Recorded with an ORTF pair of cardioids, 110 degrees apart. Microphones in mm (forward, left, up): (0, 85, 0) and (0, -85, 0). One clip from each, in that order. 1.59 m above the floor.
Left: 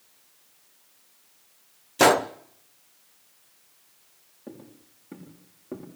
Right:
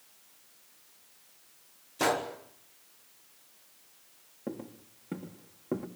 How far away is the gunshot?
About 1.1 m.